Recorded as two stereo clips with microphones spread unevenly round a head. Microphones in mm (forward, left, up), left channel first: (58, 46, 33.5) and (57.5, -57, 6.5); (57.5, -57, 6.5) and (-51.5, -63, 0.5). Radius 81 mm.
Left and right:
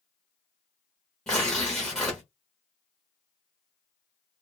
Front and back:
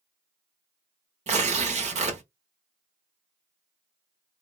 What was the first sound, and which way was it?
Tearing paper, 165° left.